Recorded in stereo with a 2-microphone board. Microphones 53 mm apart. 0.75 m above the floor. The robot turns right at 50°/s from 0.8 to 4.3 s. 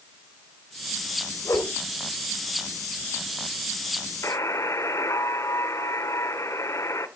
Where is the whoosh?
75° left (ahead or behind), 3 m; by 1.7 s 80° left, 3 m.